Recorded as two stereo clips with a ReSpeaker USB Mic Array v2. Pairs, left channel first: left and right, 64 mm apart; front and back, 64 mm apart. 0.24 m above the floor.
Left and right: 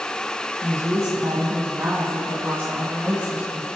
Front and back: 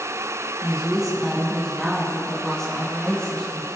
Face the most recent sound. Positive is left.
turn(degrees=-50)